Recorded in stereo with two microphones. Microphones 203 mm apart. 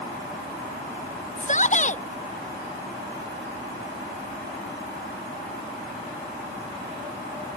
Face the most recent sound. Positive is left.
turn(degrees=35)  # may be behind; listen again after turning